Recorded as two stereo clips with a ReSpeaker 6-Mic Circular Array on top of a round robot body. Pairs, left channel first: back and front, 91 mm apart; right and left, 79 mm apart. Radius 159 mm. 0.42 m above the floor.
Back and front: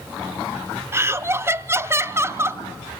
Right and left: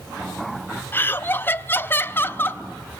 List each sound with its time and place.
0.9 s laughter: 45° right, 1.0 m